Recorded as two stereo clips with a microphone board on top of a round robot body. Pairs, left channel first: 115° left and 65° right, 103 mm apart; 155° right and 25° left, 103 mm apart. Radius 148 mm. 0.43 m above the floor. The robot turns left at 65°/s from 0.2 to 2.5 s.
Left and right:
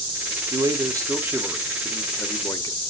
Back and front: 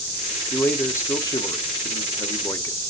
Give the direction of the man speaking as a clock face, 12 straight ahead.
3 o'clock.